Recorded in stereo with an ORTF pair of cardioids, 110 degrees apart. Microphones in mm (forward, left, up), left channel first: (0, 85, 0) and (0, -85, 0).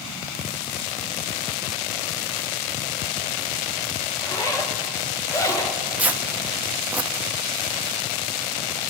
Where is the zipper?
20° left, 1.6 m.